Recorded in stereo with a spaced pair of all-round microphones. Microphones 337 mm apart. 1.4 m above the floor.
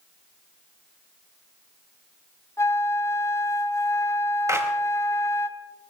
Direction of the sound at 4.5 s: 10° right (ahead or behind).